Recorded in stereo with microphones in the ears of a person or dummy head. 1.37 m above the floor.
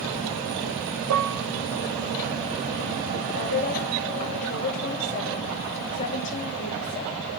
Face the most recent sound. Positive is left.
turn(degrees=45)  # may be behind; listen again after turning